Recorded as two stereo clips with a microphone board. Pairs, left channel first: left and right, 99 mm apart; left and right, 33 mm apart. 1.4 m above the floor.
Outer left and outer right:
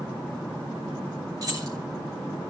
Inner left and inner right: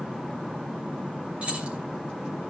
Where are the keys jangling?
40° right (ahead or behind), 2.5 m.